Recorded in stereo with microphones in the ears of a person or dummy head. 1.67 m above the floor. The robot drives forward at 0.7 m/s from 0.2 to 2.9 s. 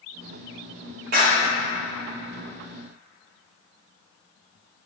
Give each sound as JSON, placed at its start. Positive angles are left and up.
{"t": 1.1, "sound": "a clap", "side_deg": -55, "distance_m": 1.8}